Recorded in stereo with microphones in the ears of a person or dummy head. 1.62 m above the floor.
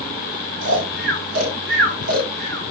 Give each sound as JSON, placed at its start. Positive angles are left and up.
{"t": 0.6, "sound": "snoring", "side_deg": -75, "distance_m": 4.5}